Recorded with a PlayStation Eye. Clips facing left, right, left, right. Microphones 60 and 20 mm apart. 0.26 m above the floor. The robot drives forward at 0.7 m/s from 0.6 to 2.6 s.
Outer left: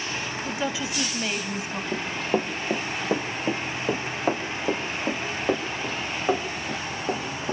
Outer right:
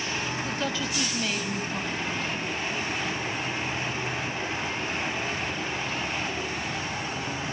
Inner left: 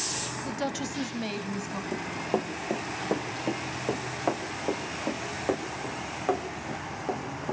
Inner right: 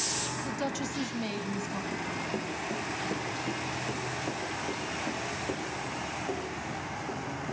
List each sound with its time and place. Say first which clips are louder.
0.5 s a woman speaking: outer left 1 dB, inner left 1 dB; 15° left (ahead or behind), 1.2 m; by 1.8 s 10° left (ahead or behind), 1.7 m
1.9 s running footsteps: outer left 4 dB, inner left 3 dB; 70° left (ahead or behind), 3 m; by 7.5 s 55° left (ahead or behind), 6 m